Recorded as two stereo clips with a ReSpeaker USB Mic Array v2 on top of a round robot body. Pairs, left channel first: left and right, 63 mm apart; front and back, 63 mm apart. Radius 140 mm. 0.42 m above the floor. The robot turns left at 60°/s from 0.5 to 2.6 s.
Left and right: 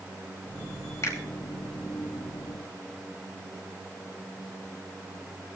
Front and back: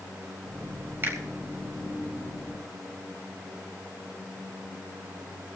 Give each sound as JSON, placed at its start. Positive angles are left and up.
{"t": 1.0, "sound": "a finger snap", "azimuth_deg": 130, "distance_m": 4.0}